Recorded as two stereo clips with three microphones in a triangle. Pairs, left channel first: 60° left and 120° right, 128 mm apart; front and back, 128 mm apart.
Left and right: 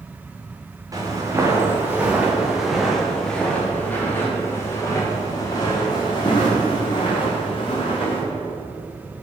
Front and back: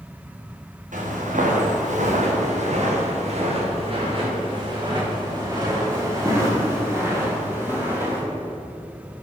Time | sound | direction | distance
0.9 | footsteps | straight behind | 3.5 m